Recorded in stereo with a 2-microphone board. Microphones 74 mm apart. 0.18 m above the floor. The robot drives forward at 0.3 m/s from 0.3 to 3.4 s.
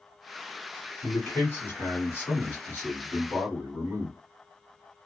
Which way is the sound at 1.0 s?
30° left (ahead or behind).